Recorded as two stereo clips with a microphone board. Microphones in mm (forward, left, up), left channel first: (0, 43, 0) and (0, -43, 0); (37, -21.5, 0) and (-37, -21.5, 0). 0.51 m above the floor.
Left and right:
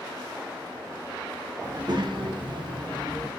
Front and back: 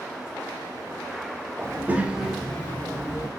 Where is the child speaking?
125° right, 1.0 m; by 3.3 s 45° right, 1.0 m.